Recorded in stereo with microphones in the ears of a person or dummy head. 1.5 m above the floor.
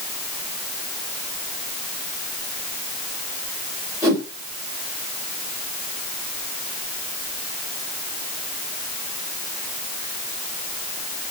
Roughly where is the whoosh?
Centre.